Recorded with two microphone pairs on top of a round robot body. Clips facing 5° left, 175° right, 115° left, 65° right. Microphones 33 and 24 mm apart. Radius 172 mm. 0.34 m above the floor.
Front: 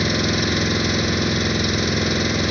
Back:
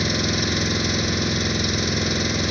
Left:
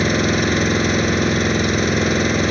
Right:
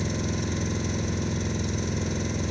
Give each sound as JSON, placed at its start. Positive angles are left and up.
{"t": 0.0, "sound": "an engine running", "azimuth_deg": 85}